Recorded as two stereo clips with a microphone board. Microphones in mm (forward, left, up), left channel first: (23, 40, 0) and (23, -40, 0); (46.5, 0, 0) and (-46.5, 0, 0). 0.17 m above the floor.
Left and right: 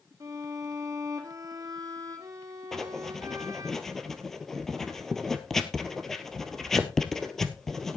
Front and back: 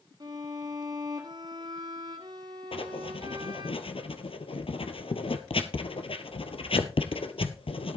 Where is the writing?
5° left, 1.3 m.